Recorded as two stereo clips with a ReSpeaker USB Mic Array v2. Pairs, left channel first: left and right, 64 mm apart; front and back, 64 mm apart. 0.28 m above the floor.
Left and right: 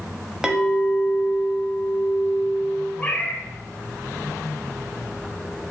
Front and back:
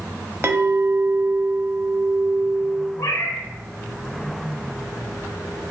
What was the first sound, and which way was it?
A clink, 160° right.